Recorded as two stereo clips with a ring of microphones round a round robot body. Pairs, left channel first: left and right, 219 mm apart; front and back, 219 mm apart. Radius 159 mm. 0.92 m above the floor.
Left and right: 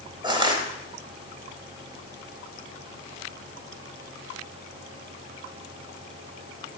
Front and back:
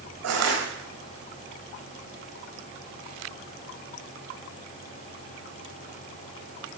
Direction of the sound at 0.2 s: 160° right.